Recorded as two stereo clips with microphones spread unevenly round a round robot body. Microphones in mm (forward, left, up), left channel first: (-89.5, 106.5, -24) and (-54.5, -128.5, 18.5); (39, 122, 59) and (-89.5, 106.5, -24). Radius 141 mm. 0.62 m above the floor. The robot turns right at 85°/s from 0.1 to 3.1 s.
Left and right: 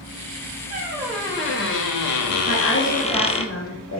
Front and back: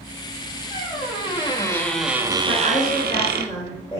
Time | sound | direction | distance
0.7 | a squeak | 35° right | 1.2 m
2.5 | a woman speaking | 25° left | 2 m